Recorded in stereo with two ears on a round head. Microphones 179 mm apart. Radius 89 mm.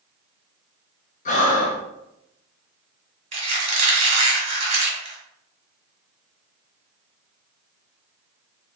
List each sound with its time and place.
1.2 s breathing: 45° left (ahead or behind), 0.7 m
3.3 s a squeak: 40° right (ahead or behind), 1.7 m